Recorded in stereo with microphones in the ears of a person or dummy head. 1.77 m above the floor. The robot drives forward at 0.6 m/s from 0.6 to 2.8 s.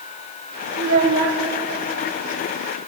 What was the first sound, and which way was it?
A child speaking, 50° right (ahead or behind).